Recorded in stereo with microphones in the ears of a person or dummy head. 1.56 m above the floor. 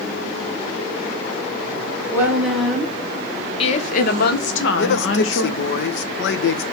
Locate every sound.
2.1 s a woman speaking: 10° right (ahead or behind), 1.8 m; by 5.8 s 80° left, 2 m
4.8 s a man speaking: 70° left (ahead or behind), 1.0 m